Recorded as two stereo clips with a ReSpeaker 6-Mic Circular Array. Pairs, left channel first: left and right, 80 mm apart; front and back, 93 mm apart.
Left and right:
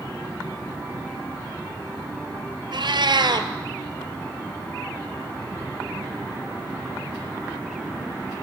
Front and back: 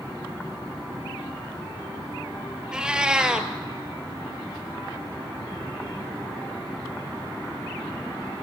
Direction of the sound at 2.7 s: 100° right.